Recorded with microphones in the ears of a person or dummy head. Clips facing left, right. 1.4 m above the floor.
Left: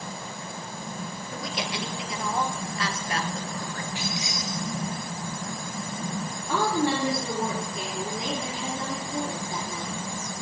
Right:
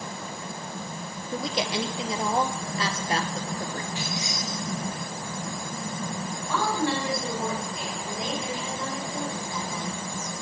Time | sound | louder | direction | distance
1.3 | a woman speaking | right 6 dB | 25° right (ahead or behind) | 0.7 m
4.0 | keys jangling | even | 10° left (ahead or behind) | 0.6 m
6.5 | a woman speaking | left 2 dB | 35° left (ahead or behind) | 3 m